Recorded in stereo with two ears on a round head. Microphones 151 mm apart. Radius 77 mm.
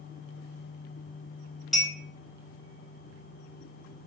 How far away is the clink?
About 1.4 m.